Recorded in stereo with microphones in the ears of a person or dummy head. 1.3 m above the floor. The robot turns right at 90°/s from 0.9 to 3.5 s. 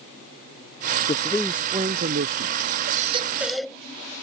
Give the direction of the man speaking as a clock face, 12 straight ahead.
7 o'clock.